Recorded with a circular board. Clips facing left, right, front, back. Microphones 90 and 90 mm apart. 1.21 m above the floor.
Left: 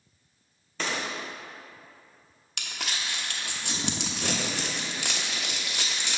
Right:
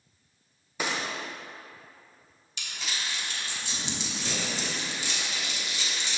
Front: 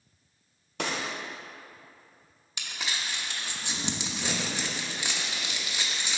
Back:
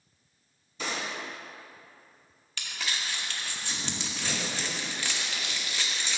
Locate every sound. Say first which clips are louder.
0.8 s a gunshot: even, front 2 dB; 10° right, 1.0 m
2.6 s crumpling: left 1 dB, even; 70° left, 0.9 m